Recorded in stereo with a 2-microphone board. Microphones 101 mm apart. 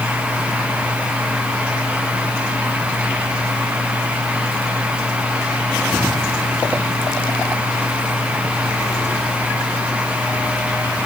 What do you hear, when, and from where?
Only background noise.